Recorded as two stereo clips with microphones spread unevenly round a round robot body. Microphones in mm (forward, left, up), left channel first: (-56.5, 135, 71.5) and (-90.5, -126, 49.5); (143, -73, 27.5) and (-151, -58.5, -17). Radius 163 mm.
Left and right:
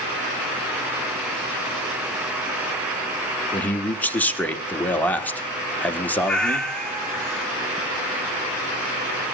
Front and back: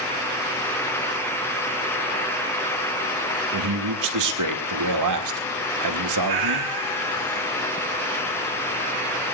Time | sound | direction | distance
3.5 | a man speaking | 170° left | 2.5 m
6.2 | a cat meowing | 170° left | 3 m